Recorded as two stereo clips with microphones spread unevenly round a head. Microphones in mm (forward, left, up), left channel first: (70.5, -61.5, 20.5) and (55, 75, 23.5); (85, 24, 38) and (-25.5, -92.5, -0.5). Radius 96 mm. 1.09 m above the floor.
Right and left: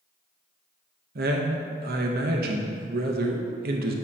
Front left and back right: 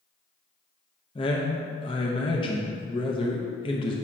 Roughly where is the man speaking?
Behind left.